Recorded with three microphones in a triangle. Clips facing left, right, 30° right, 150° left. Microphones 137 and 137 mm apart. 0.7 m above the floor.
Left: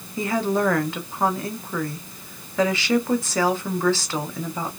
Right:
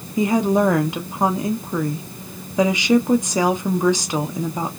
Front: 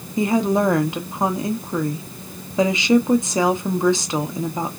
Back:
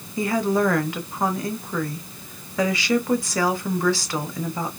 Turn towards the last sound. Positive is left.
turn(degrees=-50)